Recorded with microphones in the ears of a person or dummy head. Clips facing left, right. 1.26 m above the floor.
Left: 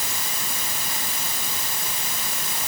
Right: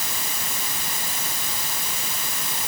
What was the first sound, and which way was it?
Only background noise.